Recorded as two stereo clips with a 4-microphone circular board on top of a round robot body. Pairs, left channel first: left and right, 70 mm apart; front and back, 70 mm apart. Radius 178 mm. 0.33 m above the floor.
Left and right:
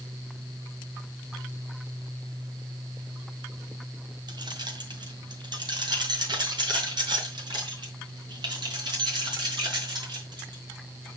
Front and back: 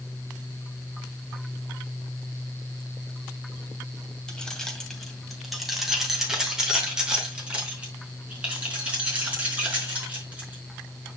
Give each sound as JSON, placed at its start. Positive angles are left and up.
{"t": 4.3, "sound": "keys jangling", "azimuth_deg": -75, "distance_m": 2.0}